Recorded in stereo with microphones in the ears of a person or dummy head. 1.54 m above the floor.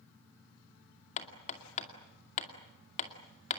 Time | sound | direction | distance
1.2 | hammering | 40° left (ahead or behind) | 2.5 m